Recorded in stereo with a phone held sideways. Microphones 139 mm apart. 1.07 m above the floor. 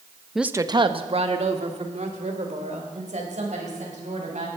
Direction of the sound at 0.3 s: 5° left (ahead or behind).